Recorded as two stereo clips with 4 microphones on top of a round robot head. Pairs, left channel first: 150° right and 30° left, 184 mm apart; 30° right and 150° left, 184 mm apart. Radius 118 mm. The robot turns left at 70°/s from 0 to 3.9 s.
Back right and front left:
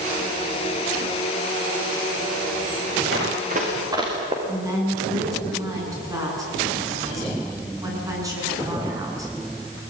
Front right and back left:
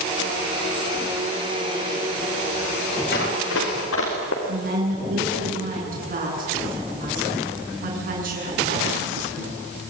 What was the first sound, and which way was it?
Running footsteps, 10° left.